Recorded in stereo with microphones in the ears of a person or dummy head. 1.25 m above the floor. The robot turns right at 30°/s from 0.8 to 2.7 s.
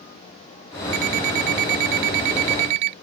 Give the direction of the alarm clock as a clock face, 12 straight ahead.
4 o'clock.